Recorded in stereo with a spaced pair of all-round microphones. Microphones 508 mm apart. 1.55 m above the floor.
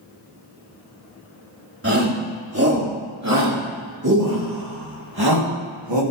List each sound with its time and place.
1.8 s a shout: 25° right (ahead or behind), 4 m; by 6.0 s 55° right (ahead or behind), 2 m